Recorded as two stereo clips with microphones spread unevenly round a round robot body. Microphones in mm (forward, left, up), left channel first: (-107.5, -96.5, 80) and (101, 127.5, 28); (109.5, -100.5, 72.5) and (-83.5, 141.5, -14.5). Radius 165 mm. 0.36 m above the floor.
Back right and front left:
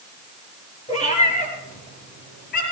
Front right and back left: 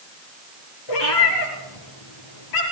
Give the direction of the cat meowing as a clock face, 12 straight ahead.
2 o'clock.